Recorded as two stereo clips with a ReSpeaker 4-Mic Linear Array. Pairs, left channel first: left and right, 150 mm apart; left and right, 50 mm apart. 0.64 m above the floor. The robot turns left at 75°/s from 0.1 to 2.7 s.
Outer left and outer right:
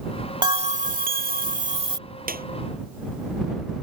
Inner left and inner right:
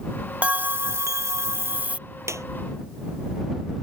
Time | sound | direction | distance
0.4 | a bell | 30° right | ?
2.3 | a clap | 75° right (ahead or behind) | ?